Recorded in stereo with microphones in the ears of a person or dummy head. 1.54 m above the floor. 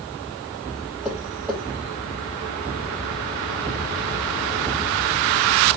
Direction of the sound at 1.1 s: 5° right (ahead or behind).